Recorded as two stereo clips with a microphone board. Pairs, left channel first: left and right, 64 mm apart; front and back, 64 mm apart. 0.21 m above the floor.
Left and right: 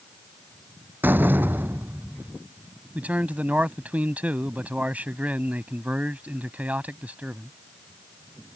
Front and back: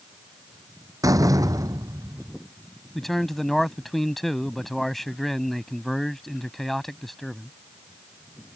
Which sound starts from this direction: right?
A man speaking, at 3.0 s.